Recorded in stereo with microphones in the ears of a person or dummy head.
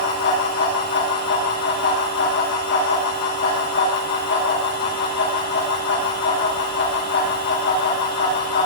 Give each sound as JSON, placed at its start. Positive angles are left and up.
{"t": 0.0, "sound": "a fan", "side_deg": 75, "distance_m": 9.5}